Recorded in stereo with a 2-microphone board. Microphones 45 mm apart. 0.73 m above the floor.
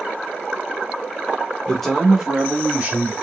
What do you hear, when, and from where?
1.7 s a man speaking: 15° left (ahead or behind), 1.1 m; by 3.1 s 20° right (ahead or behind), 2.0 m